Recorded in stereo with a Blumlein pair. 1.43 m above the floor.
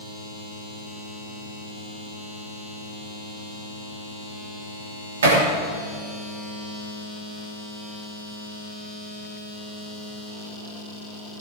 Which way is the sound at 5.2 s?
65° right.